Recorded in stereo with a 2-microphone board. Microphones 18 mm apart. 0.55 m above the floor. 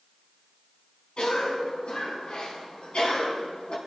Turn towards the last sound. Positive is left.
turn(degrees=60)  # may be behind; listen again after turning